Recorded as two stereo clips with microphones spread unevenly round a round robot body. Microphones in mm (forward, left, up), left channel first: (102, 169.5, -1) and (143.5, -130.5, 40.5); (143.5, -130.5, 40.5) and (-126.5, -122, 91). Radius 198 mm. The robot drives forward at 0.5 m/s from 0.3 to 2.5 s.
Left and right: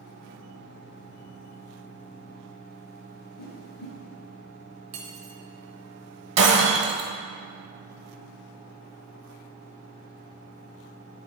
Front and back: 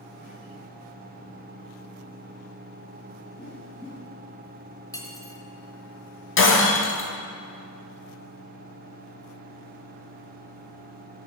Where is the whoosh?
90° left, 2.5 m.